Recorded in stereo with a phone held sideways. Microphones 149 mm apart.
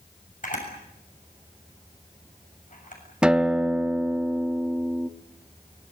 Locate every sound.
0.4 s a camera shutter: 55° left (ahead or behind), 7 m
3.2 s a guitar: 5° right (ahead or behind), 1.1 m